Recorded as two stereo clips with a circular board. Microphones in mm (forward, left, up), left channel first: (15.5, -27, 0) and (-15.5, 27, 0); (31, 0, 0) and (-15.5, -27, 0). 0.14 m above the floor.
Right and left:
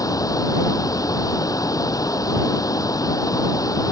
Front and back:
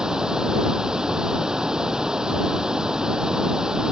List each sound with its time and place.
0.0 s running water: 70° right